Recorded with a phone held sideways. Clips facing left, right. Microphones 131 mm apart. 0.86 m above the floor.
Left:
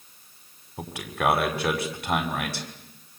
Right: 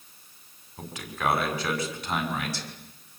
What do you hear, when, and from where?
0.8 s a man speaking: 65° left (ahead or behind), 5 m